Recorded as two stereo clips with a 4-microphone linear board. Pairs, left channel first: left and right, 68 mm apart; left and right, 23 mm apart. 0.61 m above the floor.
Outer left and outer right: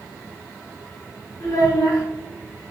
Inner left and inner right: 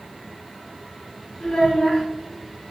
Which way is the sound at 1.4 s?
75° left (ahead or behind).